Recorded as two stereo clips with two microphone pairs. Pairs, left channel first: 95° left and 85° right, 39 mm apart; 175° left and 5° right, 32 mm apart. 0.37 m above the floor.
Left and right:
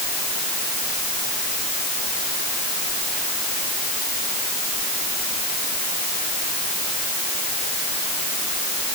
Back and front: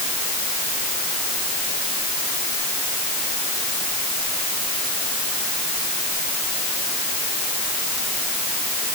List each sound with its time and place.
Only background noise.